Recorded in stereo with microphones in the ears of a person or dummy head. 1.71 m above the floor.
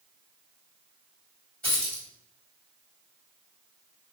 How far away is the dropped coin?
About 1.7 m.